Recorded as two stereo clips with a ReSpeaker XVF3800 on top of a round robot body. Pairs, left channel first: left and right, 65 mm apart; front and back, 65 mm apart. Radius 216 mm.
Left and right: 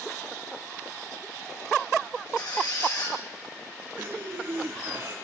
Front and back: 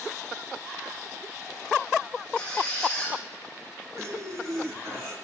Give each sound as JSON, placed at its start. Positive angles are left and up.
{"t": 2.4, "sound": "a squeak", "azimuth_deg": 75, "distance_m": 7.5}
{"t": 4.0, "sound": "breathing", "azimuth_deg": -150, "distance_m": 7.5}